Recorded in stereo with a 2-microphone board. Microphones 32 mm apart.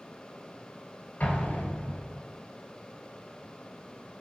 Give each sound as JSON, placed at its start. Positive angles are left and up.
{"t": 1.2, "sound": "an explosion", "side_deg": 55, "distance_m": 1.0}